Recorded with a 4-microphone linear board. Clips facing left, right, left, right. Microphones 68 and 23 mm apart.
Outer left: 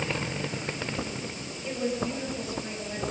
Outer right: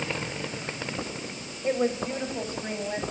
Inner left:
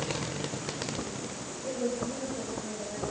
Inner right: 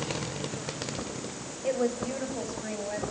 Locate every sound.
1.6 s a woman speaking: 40° right (ahead or behind), 4.5 m